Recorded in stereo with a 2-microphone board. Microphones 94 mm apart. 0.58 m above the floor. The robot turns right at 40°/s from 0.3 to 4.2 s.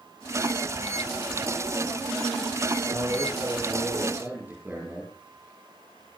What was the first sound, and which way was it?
A man speaking, 75° right.